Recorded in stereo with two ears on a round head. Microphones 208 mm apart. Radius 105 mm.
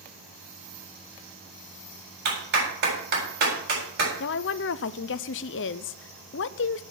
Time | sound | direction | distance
2.2 | a clap | 45° right (ahead or behind) | 8 m
4.2 | a woman speaking | 55° left (ahead or behind) | 0.6 m